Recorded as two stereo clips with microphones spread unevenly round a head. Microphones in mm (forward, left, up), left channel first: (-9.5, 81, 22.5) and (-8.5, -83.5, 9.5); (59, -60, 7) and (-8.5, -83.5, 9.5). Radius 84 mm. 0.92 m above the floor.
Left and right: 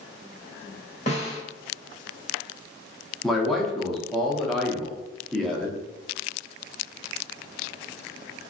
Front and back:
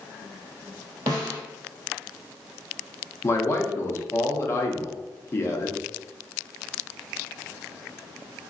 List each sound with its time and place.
1.1 s a snare drum: 140° left, 1.5 m
3.2 s a man speaking: 5° right, 0.9 m